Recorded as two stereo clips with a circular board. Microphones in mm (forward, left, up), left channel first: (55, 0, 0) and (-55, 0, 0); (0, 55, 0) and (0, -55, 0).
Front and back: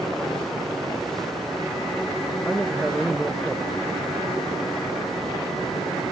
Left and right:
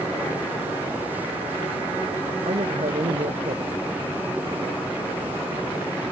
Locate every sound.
2.5 s a man speaking: 90° right